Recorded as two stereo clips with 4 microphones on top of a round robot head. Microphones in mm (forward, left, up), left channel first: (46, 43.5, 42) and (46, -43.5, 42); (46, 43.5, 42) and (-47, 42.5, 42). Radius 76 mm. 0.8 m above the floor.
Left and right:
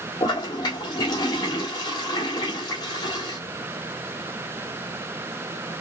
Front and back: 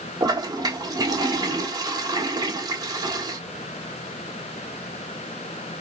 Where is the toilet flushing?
140° left, 1.6 m.